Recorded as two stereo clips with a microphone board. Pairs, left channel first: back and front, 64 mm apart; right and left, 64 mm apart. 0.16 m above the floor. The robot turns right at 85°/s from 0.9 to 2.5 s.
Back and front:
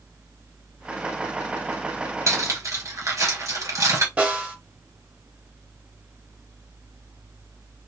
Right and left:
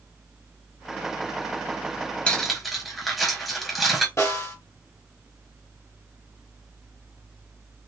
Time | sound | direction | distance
2.3 | cutlery clinking | 20° right | 1.5 m
4.2 | a snare drum | 65° right | 2 m